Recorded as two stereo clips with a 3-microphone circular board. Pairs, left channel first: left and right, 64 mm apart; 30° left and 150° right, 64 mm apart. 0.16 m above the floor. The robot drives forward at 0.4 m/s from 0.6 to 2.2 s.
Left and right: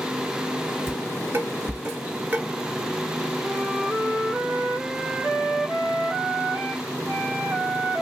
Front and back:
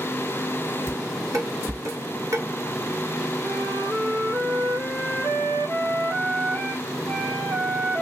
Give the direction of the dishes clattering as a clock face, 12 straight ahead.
4 o'clock.